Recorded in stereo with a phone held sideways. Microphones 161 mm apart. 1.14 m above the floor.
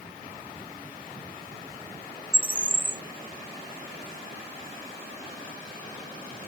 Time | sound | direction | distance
2.3 | a bird | 30° right (ahead or behind) | ?